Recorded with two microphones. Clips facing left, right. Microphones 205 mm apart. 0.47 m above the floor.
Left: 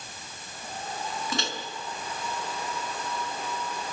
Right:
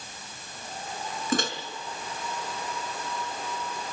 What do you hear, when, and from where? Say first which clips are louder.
1.3 s a microwave: right 8 dB; 50° right (ahead or behind), 5 m